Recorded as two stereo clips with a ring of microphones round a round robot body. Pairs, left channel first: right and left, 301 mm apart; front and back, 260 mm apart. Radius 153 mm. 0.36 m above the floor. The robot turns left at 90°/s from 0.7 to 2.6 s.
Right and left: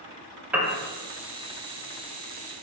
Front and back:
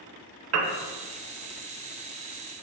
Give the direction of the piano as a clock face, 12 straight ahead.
6 o'clock.